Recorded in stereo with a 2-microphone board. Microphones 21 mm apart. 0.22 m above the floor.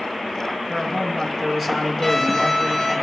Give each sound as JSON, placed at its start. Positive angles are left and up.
{"t": 0.7, "sound": "a man speaking", "side_deg": -15, "distance_m": 2.0}
{"t": 2.0, "sound": "a violin", "side_deg": 15, "distance_m": 5.0}